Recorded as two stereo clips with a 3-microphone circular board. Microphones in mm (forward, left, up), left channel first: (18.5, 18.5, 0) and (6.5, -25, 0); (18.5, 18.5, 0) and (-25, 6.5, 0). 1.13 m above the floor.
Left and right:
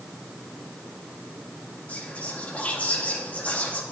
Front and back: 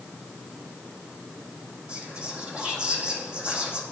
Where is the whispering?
130° left, 2 m.